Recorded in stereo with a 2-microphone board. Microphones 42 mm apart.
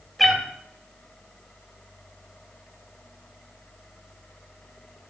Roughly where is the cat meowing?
Centre.